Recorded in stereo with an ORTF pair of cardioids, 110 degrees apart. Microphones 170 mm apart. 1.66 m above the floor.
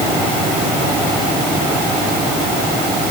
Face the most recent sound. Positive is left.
No sound to turn to.